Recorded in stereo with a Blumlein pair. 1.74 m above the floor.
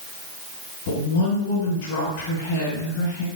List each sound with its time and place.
0.9 s a woman speaking: 45° left, 1.9 m